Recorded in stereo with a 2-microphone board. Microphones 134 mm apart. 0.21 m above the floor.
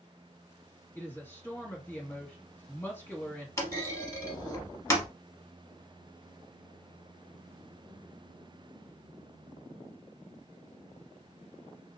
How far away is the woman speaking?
About 1.8 m.